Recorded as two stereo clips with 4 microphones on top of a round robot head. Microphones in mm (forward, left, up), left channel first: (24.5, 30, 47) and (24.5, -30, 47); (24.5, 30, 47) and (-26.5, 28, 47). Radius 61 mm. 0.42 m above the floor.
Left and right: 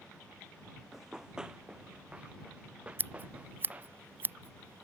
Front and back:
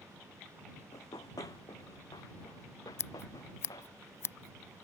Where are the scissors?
40° right.